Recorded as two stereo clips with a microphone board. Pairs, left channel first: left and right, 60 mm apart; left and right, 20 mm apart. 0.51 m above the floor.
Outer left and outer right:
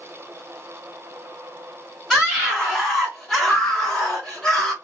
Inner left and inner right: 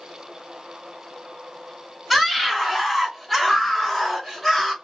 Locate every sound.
2.1 s a scream: centre (ahead or behind), 1.2 m; by 4.7 s 10° left (ahead or behind), 2 m